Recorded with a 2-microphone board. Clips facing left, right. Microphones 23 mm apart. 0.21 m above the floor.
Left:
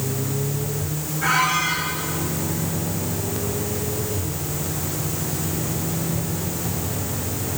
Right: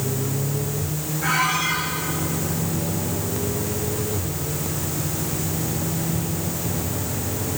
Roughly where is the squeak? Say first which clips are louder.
Left 2 dB; left.